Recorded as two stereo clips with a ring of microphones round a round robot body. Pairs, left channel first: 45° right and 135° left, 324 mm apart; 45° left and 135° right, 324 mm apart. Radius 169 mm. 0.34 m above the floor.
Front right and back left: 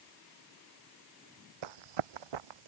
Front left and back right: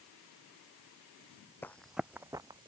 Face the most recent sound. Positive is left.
turn(degrees=150)